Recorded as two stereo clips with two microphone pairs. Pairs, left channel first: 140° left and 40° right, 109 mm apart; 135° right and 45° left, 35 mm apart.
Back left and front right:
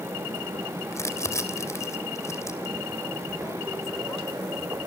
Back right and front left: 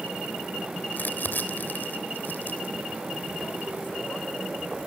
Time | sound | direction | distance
0.9 | crumpling | 160° right | 3 m